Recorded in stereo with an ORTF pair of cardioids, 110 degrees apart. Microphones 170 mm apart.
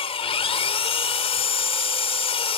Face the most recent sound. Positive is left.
turn(degrees=35)